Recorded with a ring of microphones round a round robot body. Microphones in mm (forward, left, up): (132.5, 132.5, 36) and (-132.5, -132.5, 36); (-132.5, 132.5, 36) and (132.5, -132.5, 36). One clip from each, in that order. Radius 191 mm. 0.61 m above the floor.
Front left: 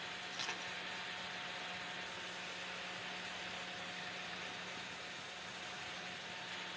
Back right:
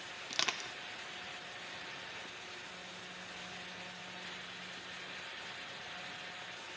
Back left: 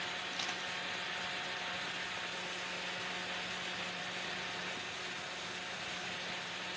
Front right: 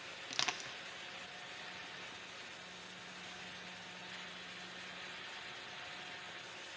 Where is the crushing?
90° right, 0.9 m.